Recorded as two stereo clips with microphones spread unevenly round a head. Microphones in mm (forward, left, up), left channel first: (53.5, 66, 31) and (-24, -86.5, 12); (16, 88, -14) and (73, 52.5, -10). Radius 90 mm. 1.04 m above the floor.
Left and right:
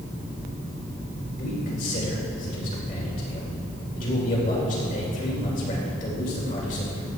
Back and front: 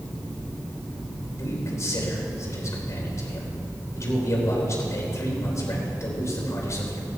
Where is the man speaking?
110° left, 4 m.